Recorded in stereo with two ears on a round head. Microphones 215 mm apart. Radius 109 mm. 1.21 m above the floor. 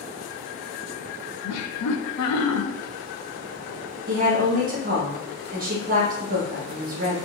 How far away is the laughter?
About 0.5 m.